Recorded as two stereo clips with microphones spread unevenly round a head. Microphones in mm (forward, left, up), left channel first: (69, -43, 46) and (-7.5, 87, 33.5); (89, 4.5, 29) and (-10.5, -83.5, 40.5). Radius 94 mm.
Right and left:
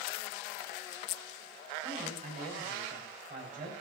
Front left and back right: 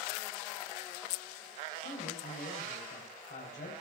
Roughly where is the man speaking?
Left.